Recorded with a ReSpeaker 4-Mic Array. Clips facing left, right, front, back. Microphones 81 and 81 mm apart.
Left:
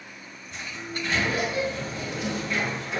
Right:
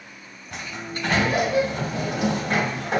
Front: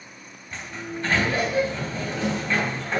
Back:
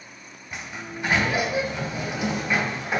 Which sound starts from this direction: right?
A sliding door, at 0.5 s.